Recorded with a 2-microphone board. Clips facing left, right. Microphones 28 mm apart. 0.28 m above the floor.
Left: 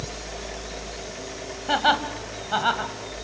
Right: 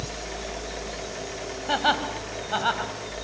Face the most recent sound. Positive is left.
turn(degrees=10)  # may be behind; listen again after turning